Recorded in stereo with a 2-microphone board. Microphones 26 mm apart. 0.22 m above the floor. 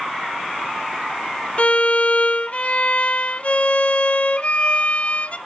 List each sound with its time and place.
1.6 s a violin: 50° left (ahead or behind), 0.9 m